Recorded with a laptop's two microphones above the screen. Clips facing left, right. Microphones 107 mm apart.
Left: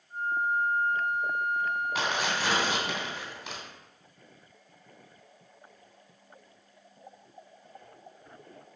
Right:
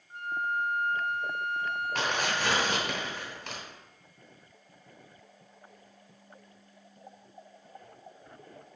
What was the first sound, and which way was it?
A flute, 70° right (ahead or behind).